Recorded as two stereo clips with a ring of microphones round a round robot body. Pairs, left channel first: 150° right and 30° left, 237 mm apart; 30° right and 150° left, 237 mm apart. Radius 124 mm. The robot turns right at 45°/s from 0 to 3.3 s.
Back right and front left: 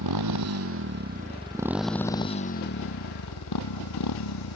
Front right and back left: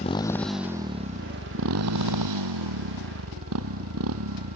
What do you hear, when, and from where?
0.0 s a motorcycle: 35° left; by 4.6 s 175° right